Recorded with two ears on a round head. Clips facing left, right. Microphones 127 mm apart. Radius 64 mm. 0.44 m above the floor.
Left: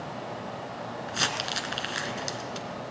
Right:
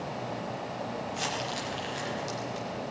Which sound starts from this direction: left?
Crumpling, at 1.1 s.